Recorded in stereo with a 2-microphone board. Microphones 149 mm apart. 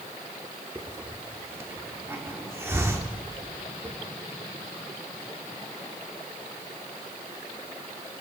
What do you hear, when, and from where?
0.8 s a hiss: 20° right (ahead or behind), 1.2 m